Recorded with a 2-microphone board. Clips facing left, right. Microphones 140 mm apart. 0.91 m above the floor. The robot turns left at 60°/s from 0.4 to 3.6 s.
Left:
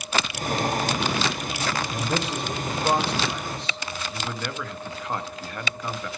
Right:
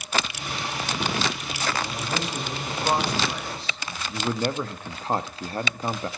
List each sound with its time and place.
1.9 s a man speaking: 100° left, 5 m; by 4.0 s 5° right, 5 m
4.1 s a man speaking: 35° right (ahead or behind), 0.9 m